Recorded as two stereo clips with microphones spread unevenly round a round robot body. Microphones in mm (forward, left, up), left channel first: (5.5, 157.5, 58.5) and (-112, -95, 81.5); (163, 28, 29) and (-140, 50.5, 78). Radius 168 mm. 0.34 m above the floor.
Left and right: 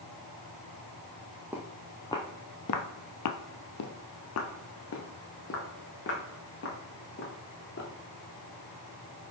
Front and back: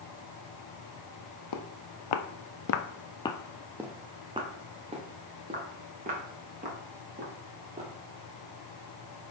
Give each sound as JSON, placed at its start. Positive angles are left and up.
{"t": 1.5, "sound": "footsteps", "azimuth_deg": -35, "distance_m": 1.0}